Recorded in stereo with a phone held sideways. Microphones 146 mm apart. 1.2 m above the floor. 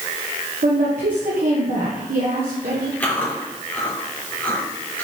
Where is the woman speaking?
75° right (ahead or behind), 1.4 m.